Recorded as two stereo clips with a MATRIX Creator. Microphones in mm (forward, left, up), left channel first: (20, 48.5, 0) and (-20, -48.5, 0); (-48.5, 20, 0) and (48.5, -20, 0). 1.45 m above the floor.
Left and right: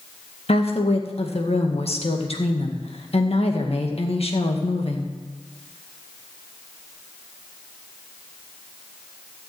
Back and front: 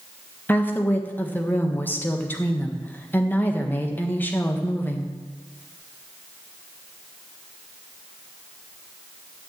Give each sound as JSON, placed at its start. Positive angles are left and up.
{"t": 0.5, "sound": "a woman speaking", "azimuth_deg": 85, "distance_m": 1.7}